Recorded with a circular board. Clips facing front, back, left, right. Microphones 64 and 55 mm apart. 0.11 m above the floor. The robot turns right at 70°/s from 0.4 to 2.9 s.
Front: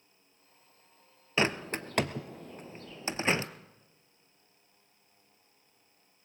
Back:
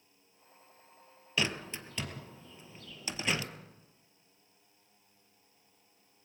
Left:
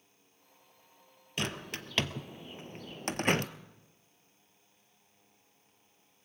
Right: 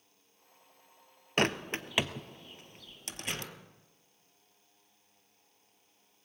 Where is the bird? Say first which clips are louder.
Front 5 dB, right 7 dB; 55° right, 0.7 m; by 3.5 s 50° left, 0.7 m.